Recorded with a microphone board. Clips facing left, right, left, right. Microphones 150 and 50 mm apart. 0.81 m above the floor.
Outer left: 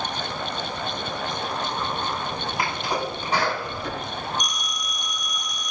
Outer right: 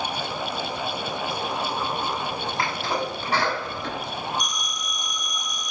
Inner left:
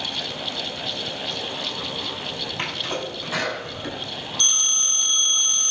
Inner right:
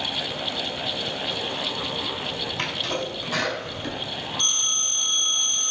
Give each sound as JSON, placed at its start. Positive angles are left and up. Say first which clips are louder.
{"t": 2.6, "sound": "a sneeze", "louder": "even, even", "side_deg": 20, "distance_m": 6.5}
{"t": 4.4, "sound": "a phone ringing", "louder": "even, inner left 4 dB", "side_deg": 75, "distance_m": 4.0}